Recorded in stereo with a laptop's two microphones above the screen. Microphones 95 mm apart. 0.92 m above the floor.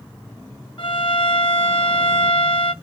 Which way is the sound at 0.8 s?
60° left (ahead or behind).